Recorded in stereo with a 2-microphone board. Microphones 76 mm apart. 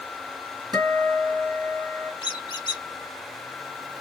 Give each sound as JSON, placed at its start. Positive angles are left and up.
{"t": 0.7, "sound": "a guitar", "side_deg": -55, "distance_m": 1.8}
{"t": 2.2, "sound": "a squeak", "side_deg": 80, "distance_m": 0.7}